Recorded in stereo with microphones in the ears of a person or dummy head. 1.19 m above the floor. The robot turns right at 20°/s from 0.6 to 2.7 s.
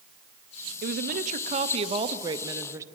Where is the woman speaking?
55° right, 0.7 m; by 2.8 s 20° right, 0.7 m.